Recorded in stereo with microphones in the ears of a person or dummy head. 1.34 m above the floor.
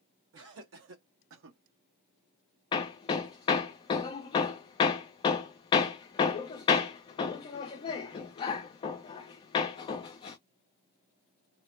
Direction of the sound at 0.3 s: 80° right.